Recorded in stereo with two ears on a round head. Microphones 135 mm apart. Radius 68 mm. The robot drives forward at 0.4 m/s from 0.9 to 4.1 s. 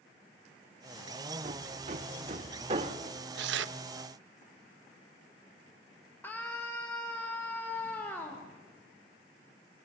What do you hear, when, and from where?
1.4 s hammering: 50° right (ahead or behind), 1.2 m; by 3.1 s 35° right (ahead or behind), 1.5 m
3.4 s tearing paper: 70° right (ahead or behind), 0.6 m; by 3.8 s 85° right, 0.6 m
6.2 s a scream: 15° left (ahead or behind), 2.5 m